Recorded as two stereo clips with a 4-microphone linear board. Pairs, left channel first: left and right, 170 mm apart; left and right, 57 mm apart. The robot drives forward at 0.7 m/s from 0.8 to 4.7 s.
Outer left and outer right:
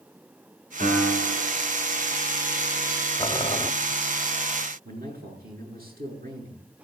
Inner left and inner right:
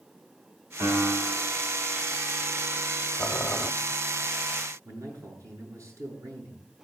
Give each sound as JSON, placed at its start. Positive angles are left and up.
{"t": 0.8, "sound": "a piano", "side_deg": -75, "distance_m": 5.0}
{"t": 3.2, "sound": "boiling", "side_deg": 30, "distance_m": 1.0}
{"t": 4.8, "sound": "a man speaking", "side_deg": -70, "distance_m": 8.0}